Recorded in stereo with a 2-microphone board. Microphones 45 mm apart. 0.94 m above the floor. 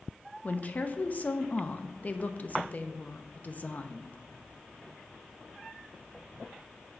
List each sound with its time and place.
0.4 s a woman speaking: 35° left (ahead or behind), 0.7 m